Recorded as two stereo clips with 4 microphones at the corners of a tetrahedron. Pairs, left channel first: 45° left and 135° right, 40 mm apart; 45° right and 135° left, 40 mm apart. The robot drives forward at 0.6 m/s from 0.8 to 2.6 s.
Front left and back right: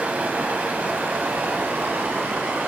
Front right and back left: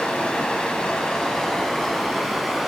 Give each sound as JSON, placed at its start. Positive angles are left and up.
{"t": 0.0, "sound": "running water", "azimuth_deg": -110, "distance_m": 1.6}